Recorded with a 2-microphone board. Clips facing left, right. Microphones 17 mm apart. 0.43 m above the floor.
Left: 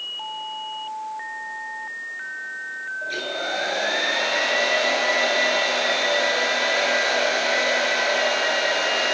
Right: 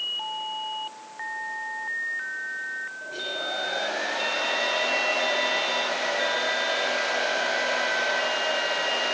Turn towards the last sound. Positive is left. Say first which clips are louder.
# left 6 dB
turn(degrees=70)  # may be behind; listen again after turning